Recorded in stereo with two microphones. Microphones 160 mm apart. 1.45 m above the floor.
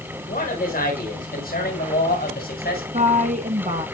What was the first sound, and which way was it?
A man speaking, 60° left (ahead or behind).